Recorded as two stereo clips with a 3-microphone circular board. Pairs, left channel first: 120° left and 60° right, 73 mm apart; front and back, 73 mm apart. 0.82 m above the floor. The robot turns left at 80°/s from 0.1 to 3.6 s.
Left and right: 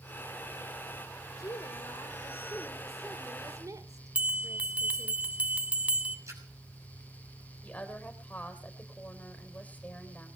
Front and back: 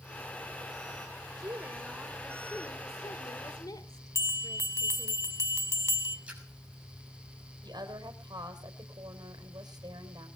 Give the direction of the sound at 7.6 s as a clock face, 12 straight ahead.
6 o'clock.